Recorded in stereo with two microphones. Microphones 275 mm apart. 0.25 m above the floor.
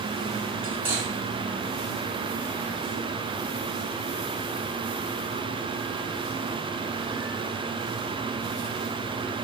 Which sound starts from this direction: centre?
Cutlery clinking, at 0.6 s.